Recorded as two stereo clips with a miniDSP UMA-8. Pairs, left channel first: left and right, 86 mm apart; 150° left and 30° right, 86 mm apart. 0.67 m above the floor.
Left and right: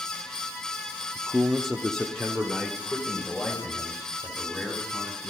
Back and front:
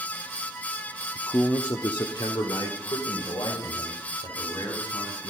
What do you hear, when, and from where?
1.1 s a man speaking: 145° right, 0.7 m; by 5.3 s 160° left, 5.5 m